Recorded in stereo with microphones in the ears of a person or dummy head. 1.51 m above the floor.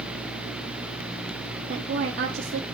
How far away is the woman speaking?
About 1.2 m.